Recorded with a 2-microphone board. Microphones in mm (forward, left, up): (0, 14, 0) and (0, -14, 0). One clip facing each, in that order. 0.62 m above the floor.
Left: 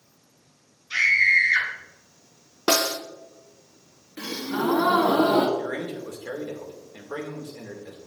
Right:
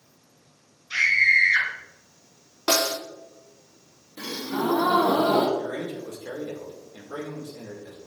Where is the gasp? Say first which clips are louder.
Left 1 dB; 40° left (ahead or behind), 1.6 m.